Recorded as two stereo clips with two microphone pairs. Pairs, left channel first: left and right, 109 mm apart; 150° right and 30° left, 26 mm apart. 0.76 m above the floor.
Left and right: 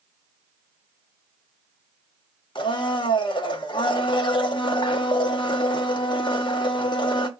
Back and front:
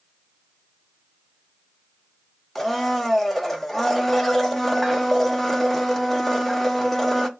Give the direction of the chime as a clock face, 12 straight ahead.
No chime in this recording.